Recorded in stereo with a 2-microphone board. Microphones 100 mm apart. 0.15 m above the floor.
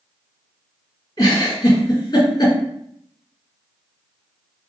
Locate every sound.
1.2 s a giggle: 40° left (ahead or behind), 2.0 m